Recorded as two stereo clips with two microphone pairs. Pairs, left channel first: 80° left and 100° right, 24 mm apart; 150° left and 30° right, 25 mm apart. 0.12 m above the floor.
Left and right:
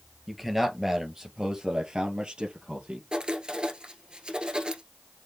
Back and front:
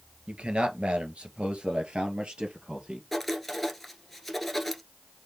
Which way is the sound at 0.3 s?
20° right.